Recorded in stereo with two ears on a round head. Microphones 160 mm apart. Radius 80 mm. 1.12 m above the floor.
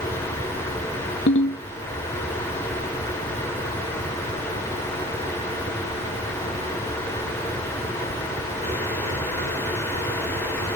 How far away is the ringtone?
About 0.9 m.